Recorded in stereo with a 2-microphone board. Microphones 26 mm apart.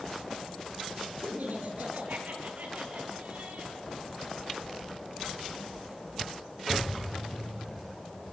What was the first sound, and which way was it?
Laughter, 75° right (ahead or behind).